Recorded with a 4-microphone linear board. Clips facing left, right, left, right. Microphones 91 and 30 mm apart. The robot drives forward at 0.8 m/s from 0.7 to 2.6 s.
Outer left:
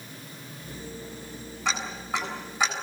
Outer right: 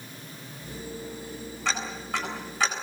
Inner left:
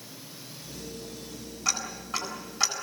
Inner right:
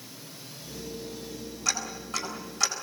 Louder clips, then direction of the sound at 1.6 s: Outer left 1 dB, inner left 1 dB; 15° left (ahead or behind).